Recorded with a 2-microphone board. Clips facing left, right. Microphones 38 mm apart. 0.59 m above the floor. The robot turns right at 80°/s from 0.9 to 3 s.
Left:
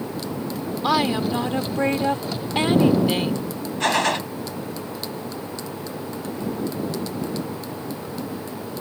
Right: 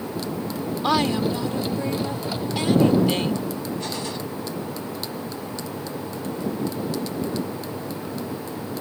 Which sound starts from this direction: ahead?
A woman speaking, at 0.8 s.